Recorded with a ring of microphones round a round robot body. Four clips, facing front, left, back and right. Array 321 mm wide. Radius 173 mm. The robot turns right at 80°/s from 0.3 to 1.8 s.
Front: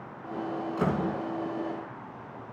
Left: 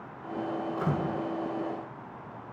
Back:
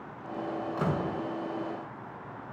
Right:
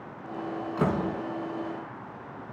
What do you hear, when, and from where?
0.8 s a door slam: 85° right, 4 m; by 1.2 s 50° right, 4 m